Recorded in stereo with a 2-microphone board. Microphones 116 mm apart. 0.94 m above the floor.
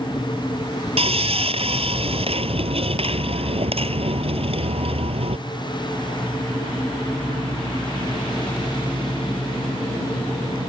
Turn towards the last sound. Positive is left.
turn(degrees=-60)  # may be behind; listen again after turning